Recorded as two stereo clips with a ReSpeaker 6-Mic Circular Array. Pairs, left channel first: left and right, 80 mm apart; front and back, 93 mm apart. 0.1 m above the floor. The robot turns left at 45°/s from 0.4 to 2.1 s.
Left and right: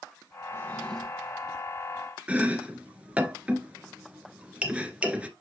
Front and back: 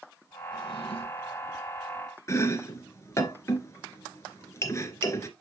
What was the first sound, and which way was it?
A drawer, 30° left.